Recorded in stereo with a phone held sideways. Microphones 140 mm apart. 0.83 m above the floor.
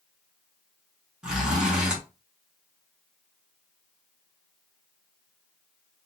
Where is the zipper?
5° right (ahead or behind), 1.5 m.